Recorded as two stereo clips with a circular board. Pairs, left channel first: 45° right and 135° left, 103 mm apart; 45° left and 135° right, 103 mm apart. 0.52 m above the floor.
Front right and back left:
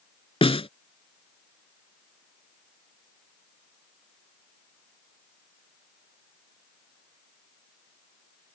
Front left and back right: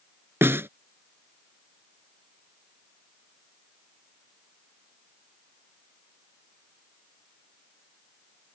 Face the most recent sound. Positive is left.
turn(degrees=-70)